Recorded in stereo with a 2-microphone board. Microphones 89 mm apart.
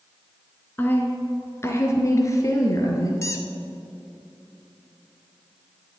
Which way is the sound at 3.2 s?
35° left (ahead or behind).